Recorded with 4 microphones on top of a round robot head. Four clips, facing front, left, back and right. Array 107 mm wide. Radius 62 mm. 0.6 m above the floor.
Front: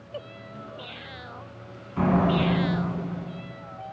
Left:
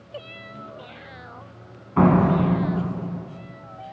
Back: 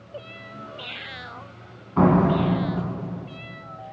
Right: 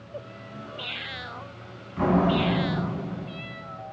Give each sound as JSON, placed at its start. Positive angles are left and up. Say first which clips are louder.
{"t": 2.0, "sound": "a door slam", "louder": "left 4 dB, back 4 dB", "azimuth_deg": 125, "distance_m": 3.5}